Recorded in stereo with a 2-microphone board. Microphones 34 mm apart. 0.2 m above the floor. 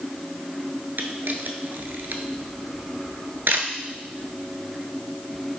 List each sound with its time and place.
1.0 s a camera shutter: 70° right (ahead or behind), 0.5 m